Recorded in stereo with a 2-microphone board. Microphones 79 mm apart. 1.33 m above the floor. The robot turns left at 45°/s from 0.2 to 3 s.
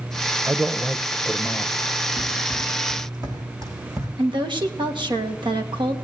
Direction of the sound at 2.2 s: 65° right (ahead or behind).